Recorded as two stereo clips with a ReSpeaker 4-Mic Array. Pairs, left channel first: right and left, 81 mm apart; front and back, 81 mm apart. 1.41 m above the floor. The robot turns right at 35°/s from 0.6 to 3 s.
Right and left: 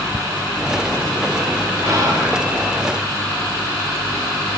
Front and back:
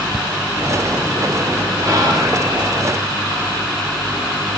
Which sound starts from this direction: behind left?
Whispering, at 1.8 s.